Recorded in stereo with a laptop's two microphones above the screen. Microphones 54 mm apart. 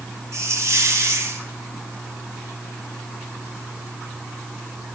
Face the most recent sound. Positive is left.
turn(degrees=-65)  # may be behind; listen again after turning